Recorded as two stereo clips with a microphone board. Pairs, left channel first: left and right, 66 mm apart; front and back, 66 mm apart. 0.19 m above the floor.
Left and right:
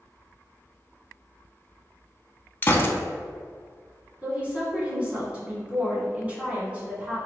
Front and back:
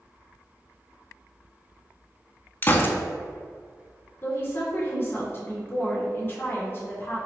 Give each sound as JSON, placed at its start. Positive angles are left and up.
{"t": 2.6, "sound": "a gunshot", "azimuth_deg": 40, "distance_m": 0.5}
{"t": 4.2, "sound": "a woman speaking", "azimuth_deg": -30, "distance_m": 1.9}